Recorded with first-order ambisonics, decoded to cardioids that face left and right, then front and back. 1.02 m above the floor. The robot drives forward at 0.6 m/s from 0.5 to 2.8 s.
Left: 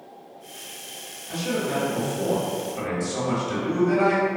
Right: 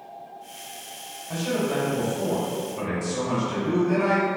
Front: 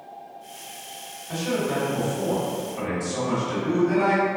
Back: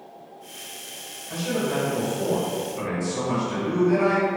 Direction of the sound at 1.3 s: 50° left.